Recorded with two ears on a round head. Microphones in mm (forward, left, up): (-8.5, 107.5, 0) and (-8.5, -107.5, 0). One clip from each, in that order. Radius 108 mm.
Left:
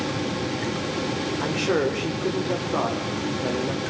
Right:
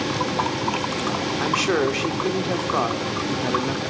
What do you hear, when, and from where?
1.4 s a man speaking: 85° right, 3 m